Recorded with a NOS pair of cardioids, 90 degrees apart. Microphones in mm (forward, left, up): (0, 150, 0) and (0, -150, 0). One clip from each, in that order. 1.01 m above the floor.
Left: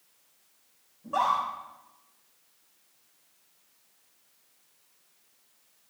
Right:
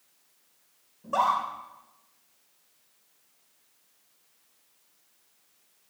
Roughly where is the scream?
Ahead right.